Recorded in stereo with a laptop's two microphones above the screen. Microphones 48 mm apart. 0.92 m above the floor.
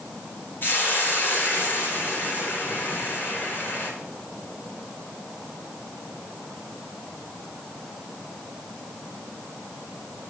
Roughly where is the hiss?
Left.